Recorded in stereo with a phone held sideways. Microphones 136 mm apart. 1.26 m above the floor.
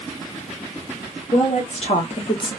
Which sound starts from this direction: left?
A woman speaking, at 1.3 s.